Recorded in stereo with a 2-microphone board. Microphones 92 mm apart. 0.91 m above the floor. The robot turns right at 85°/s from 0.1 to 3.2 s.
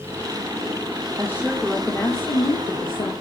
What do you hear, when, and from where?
1.2 s a woman speaking: 40° right, 3 m; by 3.1 s 125° left, 3 m